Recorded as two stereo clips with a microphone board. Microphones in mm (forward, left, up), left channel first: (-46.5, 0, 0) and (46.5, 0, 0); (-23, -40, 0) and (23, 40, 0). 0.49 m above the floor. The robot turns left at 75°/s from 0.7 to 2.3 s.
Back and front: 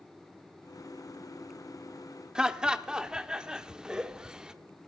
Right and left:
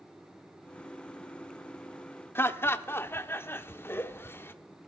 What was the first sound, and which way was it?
Laughter, 75° right.